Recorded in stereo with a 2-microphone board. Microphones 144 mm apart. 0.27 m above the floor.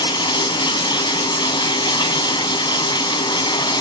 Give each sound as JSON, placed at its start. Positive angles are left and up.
{"t": 0.0, "sound": "running water", "side_deg": 30, "distance_m": 1.7}